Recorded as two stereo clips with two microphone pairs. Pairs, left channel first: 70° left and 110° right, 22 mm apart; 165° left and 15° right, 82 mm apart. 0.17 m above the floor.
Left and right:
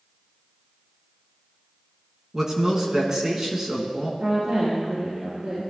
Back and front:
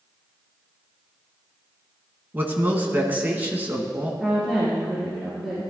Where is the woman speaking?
100° right, 3 m.